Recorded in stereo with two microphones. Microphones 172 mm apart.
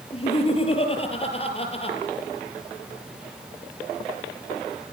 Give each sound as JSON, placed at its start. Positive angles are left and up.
{"t": 0.1, "sound": "laughter", "side_deg": 35, "distance_m": 4.5}